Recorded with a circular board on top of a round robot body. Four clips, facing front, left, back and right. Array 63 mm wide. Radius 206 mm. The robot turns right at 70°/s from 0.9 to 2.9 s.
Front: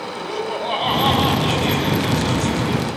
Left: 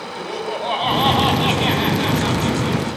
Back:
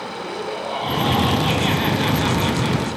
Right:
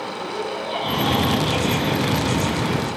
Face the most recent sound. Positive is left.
turn(degrees=-160)